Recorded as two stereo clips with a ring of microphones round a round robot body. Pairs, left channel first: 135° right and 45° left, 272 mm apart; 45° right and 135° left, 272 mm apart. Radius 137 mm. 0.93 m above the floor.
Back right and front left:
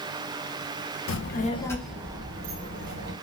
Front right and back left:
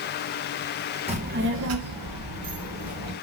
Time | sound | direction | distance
1.1 | a child speaking | 160° right | 0.5 m